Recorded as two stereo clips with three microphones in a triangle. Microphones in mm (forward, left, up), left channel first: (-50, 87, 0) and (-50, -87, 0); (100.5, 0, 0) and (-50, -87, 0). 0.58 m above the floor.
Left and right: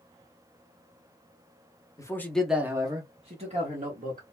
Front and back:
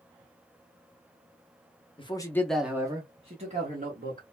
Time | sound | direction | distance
2.0 | a man speaking | 40° left | 0.7 m